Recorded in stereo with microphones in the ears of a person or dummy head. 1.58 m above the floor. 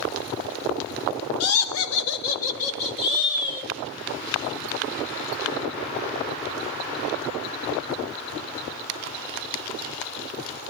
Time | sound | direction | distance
1.4 | laughter | 85° left | 0.8 m